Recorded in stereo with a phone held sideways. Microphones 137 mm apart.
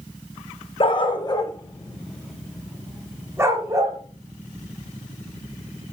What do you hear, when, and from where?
0.8 s a dog barking: 40° left (ahead or behind), 0.9 m; by 4.0 s 25° right (ahead or behind), 1.4 m